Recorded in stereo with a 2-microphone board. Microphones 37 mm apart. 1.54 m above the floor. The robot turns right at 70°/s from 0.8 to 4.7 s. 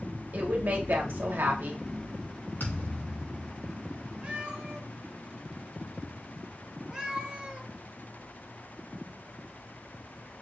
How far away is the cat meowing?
About 1.6 m.